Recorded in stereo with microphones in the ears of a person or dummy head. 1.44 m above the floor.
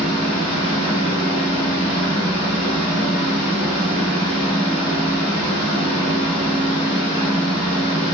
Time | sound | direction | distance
0.0 | a fan | 75° right (ahead or behind) | 2.5 m